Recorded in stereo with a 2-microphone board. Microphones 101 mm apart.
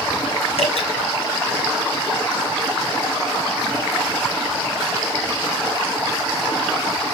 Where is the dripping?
70° left (ahead or behind), 3.5 m.